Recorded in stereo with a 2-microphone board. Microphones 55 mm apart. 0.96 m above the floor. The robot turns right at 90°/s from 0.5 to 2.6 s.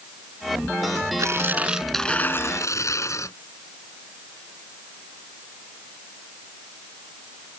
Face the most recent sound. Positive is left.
turn(degrees=65)